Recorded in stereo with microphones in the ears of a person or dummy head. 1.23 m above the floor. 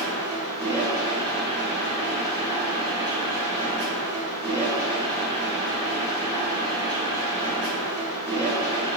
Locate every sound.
0.0 s a machine running: 25° right (ahead or behind), 1.3 m